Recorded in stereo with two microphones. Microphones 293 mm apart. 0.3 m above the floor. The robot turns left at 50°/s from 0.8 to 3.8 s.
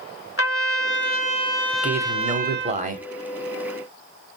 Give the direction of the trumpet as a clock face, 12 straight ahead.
10 o'clock.